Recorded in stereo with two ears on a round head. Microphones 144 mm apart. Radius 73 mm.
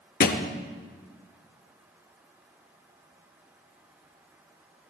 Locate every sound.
0.2 s a thud: 55° left (ahead or behind), 0.9 m